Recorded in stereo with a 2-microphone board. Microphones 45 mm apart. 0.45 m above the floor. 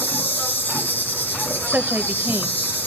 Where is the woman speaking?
45° right (ahead or behind), 1.5 m.